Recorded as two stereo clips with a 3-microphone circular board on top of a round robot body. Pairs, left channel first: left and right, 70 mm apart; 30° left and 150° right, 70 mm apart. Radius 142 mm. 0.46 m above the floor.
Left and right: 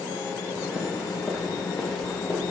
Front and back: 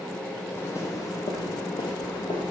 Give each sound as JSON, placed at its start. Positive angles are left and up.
{"t": 0.6, "sound": "footsteps", "azimuth_deg": -25, "distance_m": 1.4}